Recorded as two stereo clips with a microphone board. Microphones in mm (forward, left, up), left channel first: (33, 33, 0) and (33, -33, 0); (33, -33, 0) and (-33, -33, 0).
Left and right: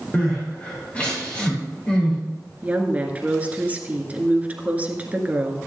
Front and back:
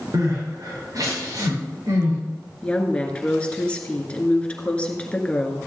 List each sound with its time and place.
0.1 s crying: 160° left, 5.5 m
2.6 s a woman speaking: 50° right, 1.6 m